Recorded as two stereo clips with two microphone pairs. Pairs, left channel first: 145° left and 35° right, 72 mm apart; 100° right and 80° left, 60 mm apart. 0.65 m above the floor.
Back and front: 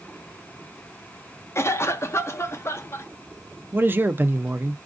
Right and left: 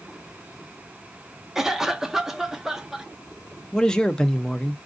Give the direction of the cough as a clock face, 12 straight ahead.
7 o'clock.